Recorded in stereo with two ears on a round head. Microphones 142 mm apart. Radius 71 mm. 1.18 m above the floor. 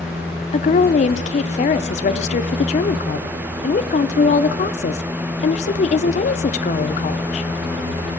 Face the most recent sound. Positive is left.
turn(degrees=45)  # may be behind; listen again after turning